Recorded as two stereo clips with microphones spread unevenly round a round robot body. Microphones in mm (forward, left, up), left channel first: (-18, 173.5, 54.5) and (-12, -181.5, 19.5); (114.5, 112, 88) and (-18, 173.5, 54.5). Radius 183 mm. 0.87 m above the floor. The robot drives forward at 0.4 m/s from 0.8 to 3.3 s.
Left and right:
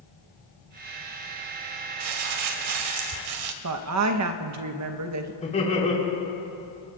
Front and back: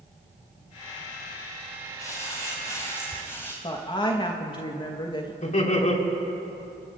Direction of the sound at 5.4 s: 15° left.